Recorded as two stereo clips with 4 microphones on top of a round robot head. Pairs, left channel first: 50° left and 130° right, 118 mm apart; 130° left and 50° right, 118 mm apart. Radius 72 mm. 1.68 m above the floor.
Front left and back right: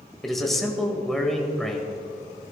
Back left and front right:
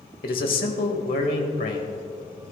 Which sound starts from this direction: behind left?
A man speaking, at 0.2 s.